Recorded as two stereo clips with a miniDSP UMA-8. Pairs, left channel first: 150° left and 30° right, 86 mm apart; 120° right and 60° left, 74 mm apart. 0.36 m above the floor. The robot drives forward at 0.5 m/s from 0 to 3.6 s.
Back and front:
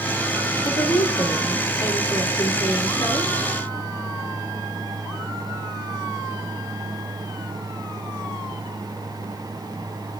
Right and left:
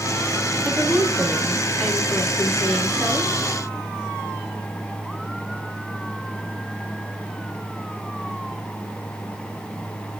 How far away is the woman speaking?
About 2.5 m.